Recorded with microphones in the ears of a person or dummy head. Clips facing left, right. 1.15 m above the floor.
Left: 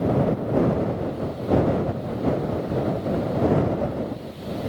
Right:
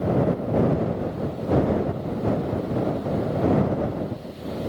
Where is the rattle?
No rattle in this recording.